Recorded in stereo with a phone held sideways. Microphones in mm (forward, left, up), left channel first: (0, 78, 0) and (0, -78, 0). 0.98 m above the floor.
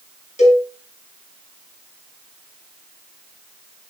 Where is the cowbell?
40° left (ahead or behind), 6.5 m.